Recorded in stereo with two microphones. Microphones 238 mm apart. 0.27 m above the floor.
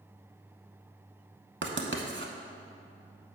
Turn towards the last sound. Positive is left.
turn(degrees=-50)  # may be behind; listen again after turning